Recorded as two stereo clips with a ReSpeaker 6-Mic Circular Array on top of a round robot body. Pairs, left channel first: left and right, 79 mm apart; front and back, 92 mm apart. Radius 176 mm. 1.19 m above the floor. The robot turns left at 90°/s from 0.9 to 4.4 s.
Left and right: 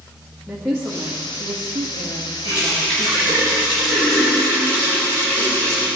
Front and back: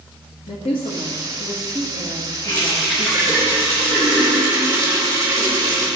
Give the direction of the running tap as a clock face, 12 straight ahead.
2 o'clock.